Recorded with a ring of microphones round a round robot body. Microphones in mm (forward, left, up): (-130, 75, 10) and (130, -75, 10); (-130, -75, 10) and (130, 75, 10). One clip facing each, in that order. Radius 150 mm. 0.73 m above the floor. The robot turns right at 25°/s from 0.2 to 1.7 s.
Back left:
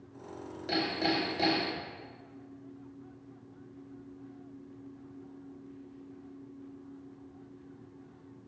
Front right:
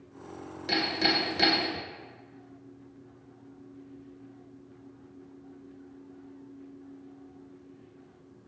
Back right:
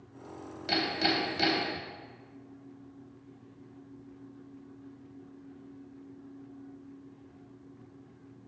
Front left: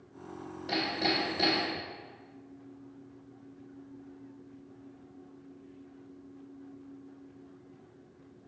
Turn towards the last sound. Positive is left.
turn(degrees=-80)